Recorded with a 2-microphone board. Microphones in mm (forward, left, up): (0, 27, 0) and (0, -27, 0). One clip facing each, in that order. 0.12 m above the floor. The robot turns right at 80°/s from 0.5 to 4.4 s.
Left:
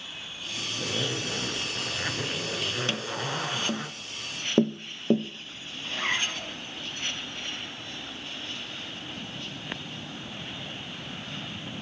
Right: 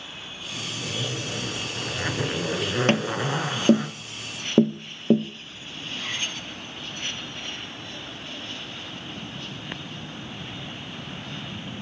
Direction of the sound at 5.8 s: 45° left (ahead or behind).